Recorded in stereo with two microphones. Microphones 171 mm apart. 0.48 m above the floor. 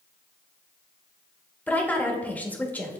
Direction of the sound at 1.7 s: 10° left (ahead or behind).